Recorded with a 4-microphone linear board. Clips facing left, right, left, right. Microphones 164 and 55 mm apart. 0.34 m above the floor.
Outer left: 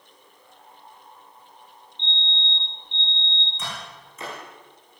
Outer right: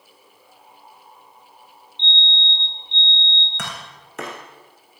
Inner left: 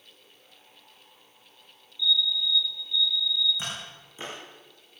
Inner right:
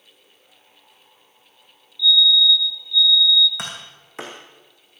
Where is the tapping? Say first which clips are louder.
Even, inner right 3 dB; 70° right (ahead or behind), 7 m.